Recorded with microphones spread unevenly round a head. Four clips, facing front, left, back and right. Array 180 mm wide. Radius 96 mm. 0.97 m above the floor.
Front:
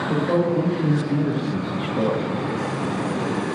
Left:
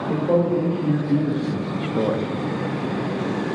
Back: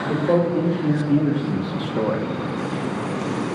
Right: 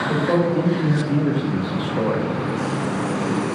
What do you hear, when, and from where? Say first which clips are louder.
0.1 s a man speaking: left 1 dB, back 2 dB; 155° left, 3.5 m; by 2.3 s 75° left, 0.7 m